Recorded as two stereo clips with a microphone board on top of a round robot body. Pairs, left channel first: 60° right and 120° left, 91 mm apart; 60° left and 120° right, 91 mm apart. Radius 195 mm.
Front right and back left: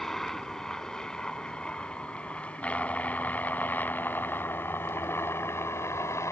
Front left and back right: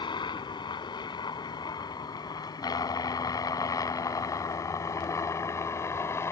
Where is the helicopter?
25° left; by 6.3 s straight ahead.